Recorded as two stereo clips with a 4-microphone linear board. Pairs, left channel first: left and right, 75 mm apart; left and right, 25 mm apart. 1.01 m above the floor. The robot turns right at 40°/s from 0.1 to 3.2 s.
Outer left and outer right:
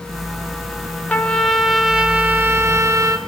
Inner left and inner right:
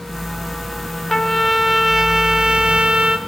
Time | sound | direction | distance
1.1 | a trumpet | 160° left | 1.0 m